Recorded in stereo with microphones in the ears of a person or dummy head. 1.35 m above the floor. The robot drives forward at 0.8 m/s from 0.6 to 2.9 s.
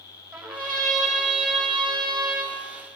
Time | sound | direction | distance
0.3 | a trumpet | centre (ahead or behind) | 6 m